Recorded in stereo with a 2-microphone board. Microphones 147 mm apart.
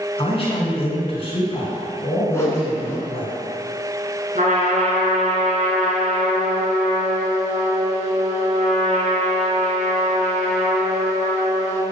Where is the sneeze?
I don't hear a sneeze.